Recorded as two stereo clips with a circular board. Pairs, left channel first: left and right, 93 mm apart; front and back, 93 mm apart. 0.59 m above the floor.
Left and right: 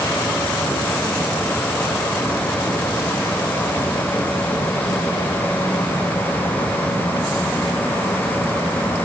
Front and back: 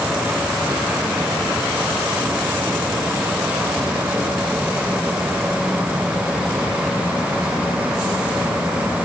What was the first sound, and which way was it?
Only background noise.